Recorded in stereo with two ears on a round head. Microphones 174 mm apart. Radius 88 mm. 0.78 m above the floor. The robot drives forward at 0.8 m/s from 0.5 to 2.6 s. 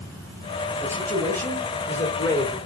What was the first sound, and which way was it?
A man speaking, 10° left (ahead or behind).